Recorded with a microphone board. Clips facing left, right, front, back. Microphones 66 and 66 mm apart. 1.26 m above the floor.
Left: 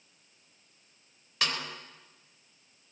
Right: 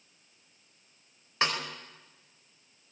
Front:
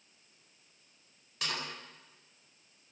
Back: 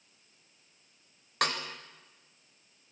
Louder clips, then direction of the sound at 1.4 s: Right 3 dB, back 7 dB; 150° right.